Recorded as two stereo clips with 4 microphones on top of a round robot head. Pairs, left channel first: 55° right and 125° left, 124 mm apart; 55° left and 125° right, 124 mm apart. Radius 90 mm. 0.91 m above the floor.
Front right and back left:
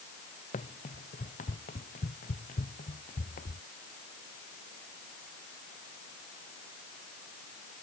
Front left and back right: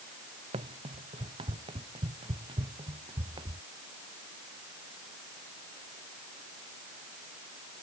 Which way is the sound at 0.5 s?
80° right.